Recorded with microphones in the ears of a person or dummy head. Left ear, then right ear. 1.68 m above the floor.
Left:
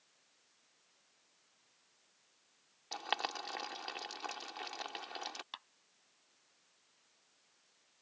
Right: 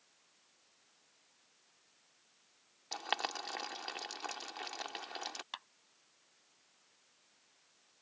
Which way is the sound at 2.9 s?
Centre (ahead or behind).